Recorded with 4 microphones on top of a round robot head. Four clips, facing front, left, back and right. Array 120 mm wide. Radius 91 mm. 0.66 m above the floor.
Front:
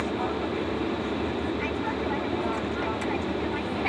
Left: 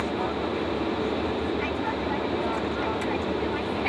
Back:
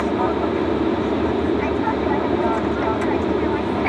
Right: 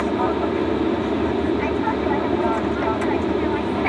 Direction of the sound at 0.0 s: 140° right.